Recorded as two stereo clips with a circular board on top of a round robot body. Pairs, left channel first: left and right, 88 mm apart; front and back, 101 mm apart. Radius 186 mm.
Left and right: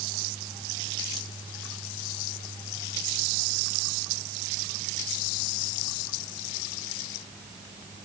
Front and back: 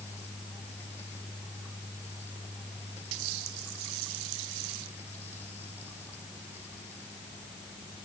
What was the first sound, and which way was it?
Only background noise.